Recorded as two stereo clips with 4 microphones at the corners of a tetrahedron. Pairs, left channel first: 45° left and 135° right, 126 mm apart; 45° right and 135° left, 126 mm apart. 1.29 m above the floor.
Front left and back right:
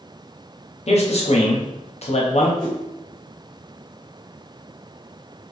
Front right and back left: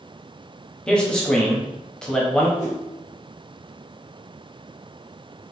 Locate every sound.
0.9 s a man speaking: 35° left, 0.7 m
2.6 s a whoosh: 40° right, 1.2 m